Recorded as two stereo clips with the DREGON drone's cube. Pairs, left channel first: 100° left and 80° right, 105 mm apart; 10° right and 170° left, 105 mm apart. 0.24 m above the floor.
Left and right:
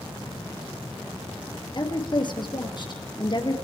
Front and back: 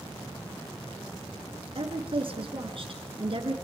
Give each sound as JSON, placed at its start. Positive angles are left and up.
{"t": 1.8, "sound": "a woman speaking", "azimuth_deg": 140, "distance_m": 3.5}